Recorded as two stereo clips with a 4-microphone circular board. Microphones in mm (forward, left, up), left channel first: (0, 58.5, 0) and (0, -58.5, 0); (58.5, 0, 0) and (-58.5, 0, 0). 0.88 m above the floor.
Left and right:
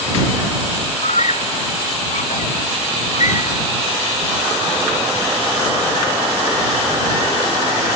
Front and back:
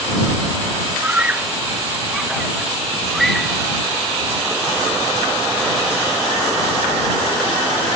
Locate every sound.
1.0 s a scream: 100° left; by 3.6 s 85° left